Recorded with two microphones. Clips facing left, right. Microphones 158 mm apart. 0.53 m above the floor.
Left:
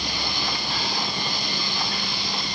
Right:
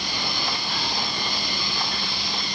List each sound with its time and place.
Only background noise.